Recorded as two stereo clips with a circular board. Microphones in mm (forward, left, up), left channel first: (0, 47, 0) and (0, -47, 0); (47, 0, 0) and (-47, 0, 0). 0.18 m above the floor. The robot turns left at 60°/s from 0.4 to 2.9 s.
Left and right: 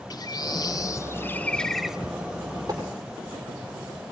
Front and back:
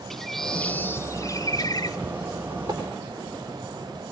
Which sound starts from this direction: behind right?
Tapping, at 2.7 s.